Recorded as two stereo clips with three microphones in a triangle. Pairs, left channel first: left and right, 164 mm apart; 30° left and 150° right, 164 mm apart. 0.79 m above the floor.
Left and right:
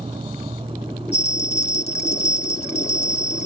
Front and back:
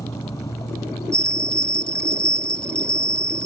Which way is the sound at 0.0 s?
40° right.